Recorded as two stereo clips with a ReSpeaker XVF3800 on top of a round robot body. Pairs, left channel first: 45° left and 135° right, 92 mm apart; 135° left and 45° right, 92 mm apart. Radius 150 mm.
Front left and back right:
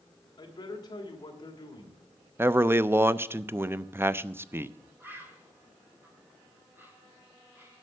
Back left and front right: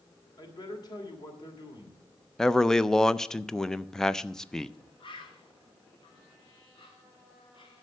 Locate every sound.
0.4 s a man speaking: 90° left, 2.5 m
2.4 s a man speaking: 150° right, 0.6 m
5.0 s a bird: 155° left, 2.5 m